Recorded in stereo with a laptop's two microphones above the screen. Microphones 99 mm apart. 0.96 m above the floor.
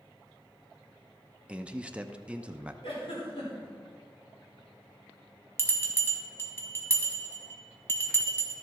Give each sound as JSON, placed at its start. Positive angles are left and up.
{"t": 1.5, "sound": "a man speaking", "side_deg": -15, "distance_m": 0.6}
{"t": 2.8, "sound": "a giggle", "side_deg": 70, "distance_m": 3.0}
{"t": 5.6, "sound": "a bell", "side_deg": 25, "distance_m": 1.7}